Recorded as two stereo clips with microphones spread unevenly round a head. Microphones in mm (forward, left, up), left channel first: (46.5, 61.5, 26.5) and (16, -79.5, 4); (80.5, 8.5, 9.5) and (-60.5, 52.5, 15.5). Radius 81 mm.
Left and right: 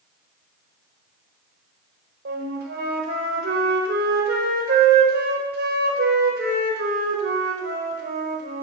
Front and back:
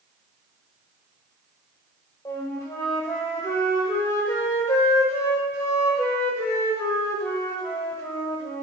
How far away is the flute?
About 1.5 m.